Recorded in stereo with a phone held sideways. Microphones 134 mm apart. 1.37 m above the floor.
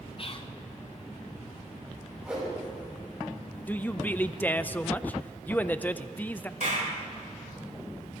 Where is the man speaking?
15° left (ahead or behind), 0.5 m.